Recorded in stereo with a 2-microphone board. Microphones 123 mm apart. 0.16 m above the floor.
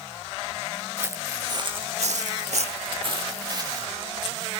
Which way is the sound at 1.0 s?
20° right (ahead or behind).